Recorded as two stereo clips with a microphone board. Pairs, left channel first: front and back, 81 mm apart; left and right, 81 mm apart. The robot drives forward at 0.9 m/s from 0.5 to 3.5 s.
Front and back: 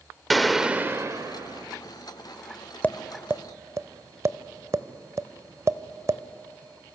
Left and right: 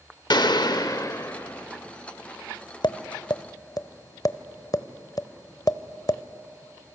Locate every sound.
0.3 s a gunshot: 90° left, 0.7 m; by 1.7 s 150° left, 1.2 m
2.8 s tapping: 70° left, 0.5 m; by 6.2 s 130° left, 0.7 m